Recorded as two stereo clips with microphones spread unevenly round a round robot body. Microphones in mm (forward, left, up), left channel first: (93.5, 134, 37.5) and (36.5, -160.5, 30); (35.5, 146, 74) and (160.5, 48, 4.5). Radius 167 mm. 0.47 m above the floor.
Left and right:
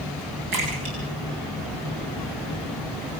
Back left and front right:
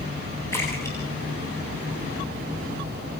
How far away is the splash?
About 9 m.